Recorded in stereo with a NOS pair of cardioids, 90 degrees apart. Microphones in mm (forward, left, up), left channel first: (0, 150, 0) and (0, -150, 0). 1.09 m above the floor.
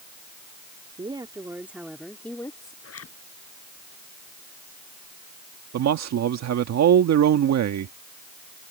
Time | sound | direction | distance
1.0 | a woman speaking | 15° right | ?
2.8 | a zipper | 50° left | ?
5.7 | a man speaking | 60° right | ?